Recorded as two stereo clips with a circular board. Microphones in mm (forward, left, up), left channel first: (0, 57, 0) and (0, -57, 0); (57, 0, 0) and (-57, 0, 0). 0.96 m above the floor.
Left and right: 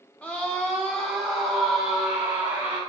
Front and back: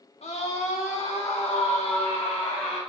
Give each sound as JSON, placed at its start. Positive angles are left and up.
{"t": 0.2, "sound": "a scream", "azimuth_deg": 10, "distance_m": 1.8}